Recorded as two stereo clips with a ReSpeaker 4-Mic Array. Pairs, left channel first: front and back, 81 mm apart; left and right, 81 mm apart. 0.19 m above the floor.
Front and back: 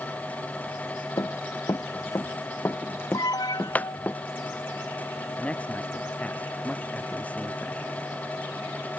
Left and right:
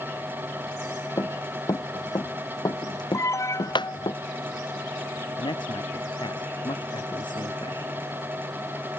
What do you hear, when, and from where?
1.2 s running footsteps: 45° left; by 4.1 s 75° left
3.1 s an alarm: 40° left
5.4 s a man speaking: 75° left